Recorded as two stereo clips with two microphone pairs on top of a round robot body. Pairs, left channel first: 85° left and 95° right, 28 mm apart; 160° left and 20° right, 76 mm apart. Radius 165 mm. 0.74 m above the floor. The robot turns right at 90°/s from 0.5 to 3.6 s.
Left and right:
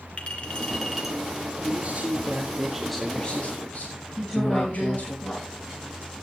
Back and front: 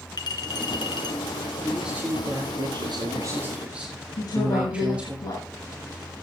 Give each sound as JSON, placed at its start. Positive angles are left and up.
{"t": 0.2, "sound": "a clink", "azimuth_deg": 130, "distance_m": 2.5}
{"t": 1.6, "sound": "a man speaking", "azimuth_deg": -120, "distance_m": 2.5}
{"t": 4.2, "sound": "a woman speaking", "azimuth_deg": 140, "distance_m": 6.5}